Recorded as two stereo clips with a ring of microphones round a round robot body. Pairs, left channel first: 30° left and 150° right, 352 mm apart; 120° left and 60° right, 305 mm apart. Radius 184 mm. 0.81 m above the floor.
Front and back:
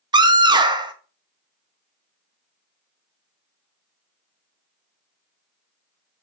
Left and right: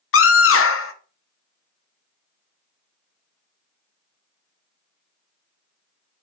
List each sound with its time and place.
0.1 s a scream: 135° left, 1.4 m